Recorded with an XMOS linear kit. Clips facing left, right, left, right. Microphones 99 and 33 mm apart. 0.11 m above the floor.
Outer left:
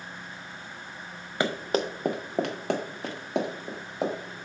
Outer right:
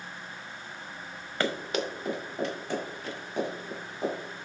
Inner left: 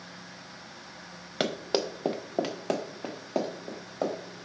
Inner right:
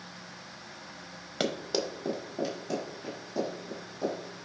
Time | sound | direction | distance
1.4 | running footsteps | 15° left (ahead or behind) | 0.9 m